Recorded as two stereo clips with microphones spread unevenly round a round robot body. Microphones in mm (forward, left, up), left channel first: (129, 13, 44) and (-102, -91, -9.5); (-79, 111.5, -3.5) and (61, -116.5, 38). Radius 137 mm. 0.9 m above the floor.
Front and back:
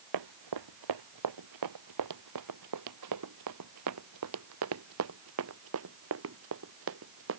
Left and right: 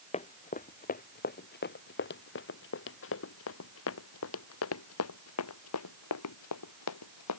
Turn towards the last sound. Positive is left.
turn(degrees=155)